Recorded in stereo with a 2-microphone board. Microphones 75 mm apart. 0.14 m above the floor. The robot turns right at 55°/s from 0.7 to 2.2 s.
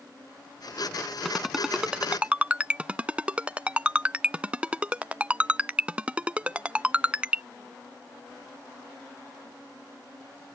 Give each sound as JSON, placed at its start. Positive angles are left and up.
{"t": 1.2, "sound": "a ringtone", "side_deg": 0}